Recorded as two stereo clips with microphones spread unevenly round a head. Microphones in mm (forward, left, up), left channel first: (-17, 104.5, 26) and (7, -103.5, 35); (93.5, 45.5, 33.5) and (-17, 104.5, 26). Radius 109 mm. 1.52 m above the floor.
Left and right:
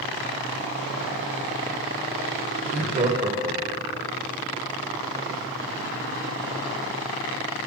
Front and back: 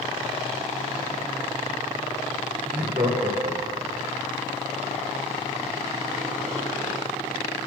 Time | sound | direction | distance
2.6 | laughter | 145° right | 2 m